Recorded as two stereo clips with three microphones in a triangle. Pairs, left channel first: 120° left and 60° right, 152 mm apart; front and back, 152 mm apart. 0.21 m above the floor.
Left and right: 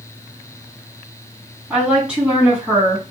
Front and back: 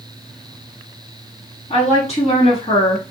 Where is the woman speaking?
20° left, 1.8 m.